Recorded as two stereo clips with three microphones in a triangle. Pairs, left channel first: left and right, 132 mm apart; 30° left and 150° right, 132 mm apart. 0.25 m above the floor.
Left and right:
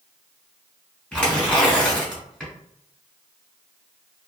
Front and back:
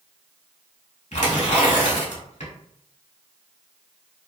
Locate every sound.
1.1 s tearing paper: 10° left, 1.2 m